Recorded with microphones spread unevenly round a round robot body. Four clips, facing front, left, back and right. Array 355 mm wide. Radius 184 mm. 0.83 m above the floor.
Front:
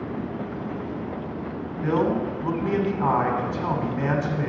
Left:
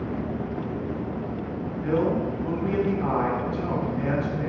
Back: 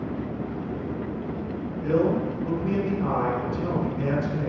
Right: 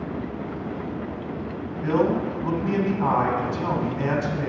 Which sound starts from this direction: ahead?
A man speaking, at 1.8 s.